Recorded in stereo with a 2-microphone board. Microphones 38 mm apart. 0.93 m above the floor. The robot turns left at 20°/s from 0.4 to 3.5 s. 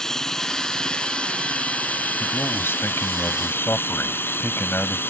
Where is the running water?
165° left; by 5.1 s 105° left.